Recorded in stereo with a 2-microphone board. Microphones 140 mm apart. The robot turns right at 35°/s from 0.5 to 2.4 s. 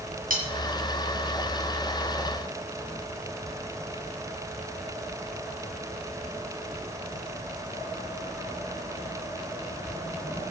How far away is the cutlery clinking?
About 3.5 m.